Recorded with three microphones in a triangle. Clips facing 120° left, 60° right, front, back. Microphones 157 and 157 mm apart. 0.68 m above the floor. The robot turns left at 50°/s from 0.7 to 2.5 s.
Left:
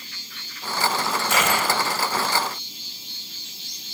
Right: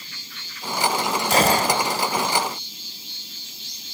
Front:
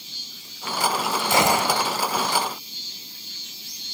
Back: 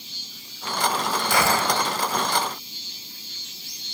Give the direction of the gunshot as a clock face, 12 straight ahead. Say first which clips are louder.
Right 5 dB, front 2 dB; 1 o'clock.